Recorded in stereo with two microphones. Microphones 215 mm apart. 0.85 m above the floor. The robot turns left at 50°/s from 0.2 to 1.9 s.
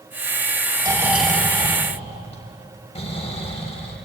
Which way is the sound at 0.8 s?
160° right.